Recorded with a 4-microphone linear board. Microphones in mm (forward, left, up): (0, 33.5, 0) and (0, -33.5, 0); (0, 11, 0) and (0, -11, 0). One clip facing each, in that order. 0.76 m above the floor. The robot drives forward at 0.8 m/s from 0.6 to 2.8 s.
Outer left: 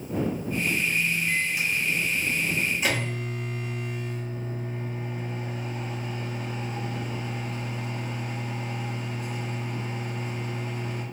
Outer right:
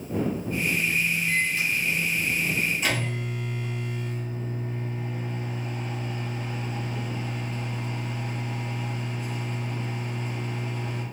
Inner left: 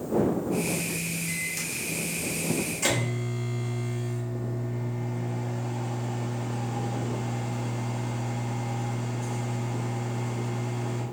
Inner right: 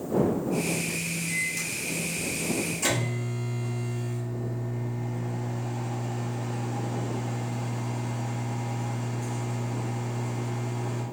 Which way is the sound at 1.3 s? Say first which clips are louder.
Outer right 1 dB, inner right 2 dB; 15° left (ahead or behind).